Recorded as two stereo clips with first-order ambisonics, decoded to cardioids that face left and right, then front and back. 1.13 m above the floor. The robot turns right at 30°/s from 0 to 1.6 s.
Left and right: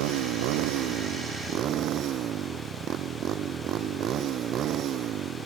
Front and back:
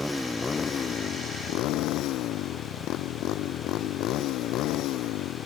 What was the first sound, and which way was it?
A motorcycle, 90° right.